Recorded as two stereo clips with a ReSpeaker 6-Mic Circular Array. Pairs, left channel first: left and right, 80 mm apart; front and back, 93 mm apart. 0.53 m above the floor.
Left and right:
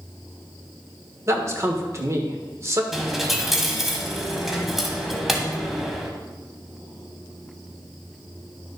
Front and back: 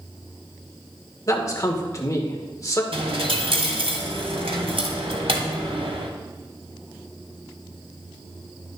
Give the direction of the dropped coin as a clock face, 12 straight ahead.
6 o'clock.